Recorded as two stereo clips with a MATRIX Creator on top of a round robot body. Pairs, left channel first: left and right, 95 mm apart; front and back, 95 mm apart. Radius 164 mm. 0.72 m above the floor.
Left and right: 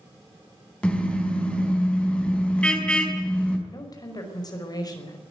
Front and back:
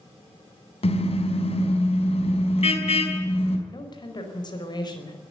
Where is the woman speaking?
40° left, 5 m.